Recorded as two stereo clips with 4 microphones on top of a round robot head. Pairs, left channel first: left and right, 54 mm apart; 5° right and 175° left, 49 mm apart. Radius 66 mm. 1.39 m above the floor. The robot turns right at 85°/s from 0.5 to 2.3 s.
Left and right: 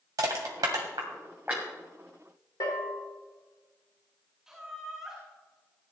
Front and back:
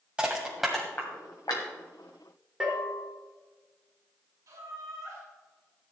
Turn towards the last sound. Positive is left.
turn(degrees=-175)